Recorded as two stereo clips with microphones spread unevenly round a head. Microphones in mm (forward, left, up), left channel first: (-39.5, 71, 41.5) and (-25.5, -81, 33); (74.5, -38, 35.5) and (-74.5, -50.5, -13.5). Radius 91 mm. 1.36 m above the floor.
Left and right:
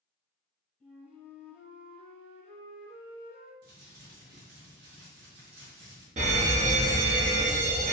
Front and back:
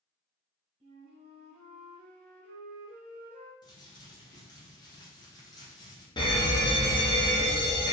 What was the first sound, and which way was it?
A flute, 160° right.